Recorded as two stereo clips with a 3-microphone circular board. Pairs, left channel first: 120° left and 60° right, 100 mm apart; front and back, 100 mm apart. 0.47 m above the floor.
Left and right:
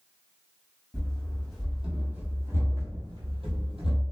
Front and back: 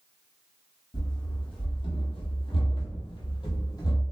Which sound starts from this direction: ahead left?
Running footsteps, at 0.9 s.